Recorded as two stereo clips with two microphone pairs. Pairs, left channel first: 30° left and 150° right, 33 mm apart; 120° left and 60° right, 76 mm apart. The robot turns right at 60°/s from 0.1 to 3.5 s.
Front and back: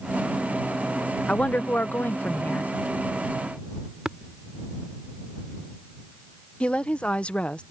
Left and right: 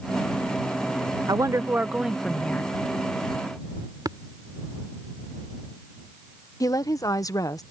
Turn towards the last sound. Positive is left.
turn(degrees=80)